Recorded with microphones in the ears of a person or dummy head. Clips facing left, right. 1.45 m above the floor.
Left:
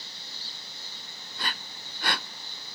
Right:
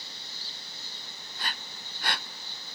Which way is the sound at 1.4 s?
70° left (ahead or behind).